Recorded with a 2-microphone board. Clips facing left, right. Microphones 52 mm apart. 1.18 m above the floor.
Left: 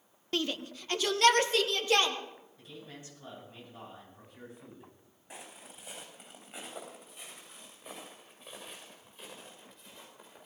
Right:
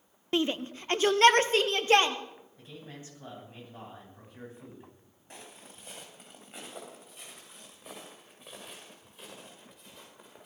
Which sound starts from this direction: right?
A man speaking, at 2.6 s.